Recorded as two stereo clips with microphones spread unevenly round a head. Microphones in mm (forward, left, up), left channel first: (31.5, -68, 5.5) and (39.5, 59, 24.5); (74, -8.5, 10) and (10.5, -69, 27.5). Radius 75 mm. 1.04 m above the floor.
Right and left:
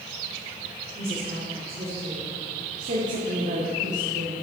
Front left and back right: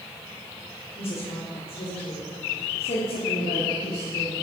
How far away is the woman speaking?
About 3 m.